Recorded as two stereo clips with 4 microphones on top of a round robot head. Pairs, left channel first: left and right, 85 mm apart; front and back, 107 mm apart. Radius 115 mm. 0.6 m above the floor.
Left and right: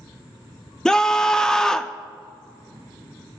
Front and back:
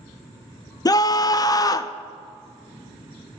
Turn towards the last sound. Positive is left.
turn(degrees=15)